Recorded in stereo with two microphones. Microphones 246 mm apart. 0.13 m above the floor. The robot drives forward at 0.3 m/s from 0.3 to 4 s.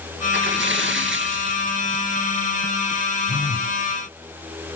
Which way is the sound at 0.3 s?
50° right (ahead or behind).